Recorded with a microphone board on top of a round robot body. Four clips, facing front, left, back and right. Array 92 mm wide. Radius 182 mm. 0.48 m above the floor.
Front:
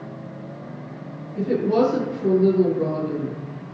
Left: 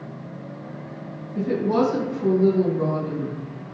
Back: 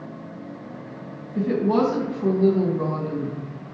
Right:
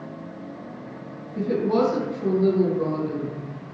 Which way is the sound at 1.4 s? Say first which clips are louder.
Even, front 1 dB; 160° left.